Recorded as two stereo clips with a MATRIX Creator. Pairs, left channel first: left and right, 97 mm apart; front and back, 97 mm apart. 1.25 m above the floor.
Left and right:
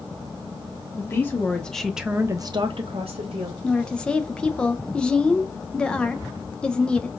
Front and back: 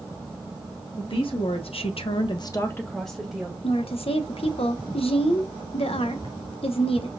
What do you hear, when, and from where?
1.0 s a woman speaking: 25° left, 1.2 m; by 3.5 s 100° right, 1.0 m
3.6 s a woman speaking: 10° left, 0.6 m